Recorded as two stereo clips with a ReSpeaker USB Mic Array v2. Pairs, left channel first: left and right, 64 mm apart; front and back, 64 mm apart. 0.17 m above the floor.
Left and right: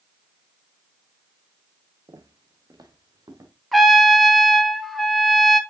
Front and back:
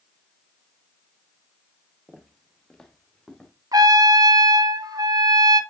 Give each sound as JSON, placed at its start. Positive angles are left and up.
{"t": 2.1, "sound": "footsteps", "azimuth_deg": -95, "distance_m": 1.3}
{"t": 3.7, "sound": "a trumpet", "azimuth_deg": 180, "distance_m": 0.5}